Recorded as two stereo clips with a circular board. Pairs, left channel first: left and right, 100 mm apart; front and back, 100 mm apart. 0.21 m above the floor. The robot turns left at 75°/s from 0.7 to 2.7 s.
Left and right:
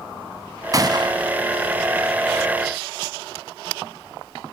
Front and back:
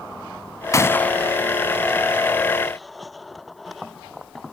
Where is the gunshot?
50° right, 0.8 m; by 1.4 s 95° right, 0.8 m.